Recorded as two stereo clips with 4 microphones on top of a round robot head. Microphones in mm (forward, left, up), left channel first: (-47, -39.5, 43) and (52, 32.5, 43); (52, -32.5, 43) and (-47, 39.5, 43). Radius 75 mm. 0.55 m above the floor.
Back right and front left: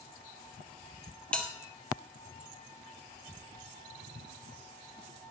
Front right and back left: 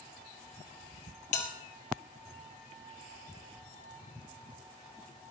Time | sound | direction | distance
1.3 | a bell | 65° right | 2.5 m